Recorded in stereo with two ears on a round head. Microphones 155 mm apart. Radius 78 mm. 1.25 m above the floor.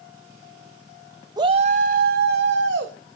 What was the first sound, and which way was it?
A shout, 20° right (ahead or behind).